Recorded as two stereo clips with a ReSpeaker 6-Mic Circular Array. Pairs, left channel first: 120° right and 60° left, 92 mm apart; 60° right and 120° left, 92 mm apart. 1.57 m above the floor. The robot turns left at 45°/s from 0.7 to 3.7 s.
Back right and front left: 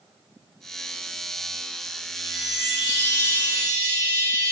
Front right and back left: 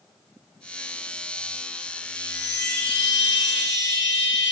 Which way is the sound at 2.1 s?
25° right.